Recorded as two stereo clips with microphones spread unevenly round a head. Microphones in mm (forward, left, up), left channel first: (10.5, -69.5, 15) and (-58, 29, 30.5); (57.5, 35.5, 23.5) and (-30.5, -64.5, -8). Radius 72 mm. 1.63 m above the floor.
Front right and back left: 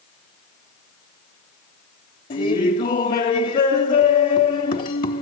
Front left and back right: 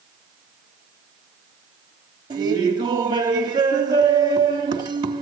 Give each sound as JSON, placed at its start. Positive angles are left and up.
{"t": 2.3, "sound": "laughter", "azimuth_deg": -65, "distance_m": 3.5}